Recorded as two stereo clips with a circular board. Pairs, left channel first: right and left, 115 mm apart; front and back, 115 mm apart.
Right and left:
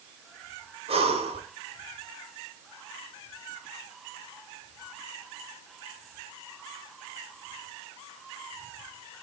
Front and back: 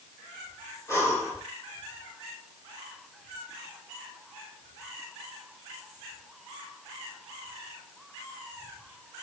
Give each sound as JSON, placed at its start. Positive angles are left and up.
{"t": 0.9, "sound": "breathing", "azimuth_deg": 65, "distance_m": 2.5}